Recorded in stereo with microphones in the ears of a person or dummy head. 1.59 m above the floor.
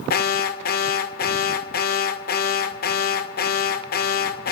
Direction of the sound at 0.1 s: 50° left (ahead or behind).